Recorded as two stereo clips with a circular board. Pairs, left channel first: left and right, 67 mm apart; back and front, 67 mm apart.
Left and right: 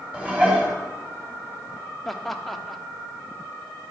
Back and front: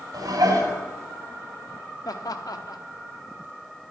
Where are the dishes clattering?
20° right, 2.5 m.